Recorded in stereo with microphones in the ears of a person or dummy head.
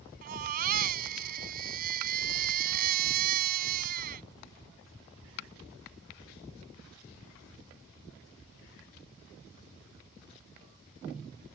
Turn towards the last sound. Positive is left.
turn(degrees=-50)  # may be behind; listen again after turning